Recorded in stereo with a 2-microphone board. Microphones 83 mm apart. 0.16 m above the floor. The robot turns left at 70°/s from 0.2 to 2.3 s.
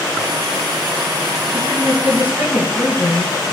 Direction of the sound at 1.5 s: 20° left.